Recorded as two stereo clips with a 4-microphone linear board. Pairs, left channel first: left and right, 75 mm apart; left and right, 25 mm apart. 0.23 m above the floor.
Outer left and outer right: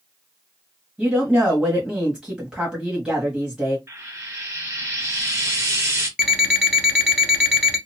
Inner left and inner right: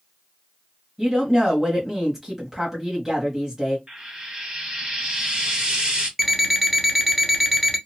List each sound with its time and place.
1.0 s a woman speaking: 10° right (ahead or behind), 1.1 m
3.9 s frying: 35° right (ahead or behind), 1.0 m
6.2 s an alarm clock: 10° right (ahead or behind), 1.0 m